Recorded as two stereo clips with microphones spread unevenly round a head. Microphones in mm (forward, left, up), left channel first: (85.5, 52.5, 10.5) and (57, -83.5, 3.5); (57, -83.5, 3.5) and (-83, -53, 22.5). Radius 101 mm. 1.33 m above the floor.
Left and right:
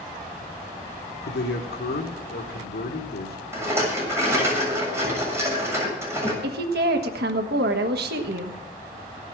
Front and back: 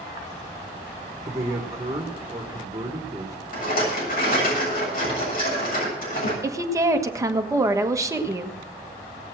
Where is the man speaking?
90° left, 1.6 m.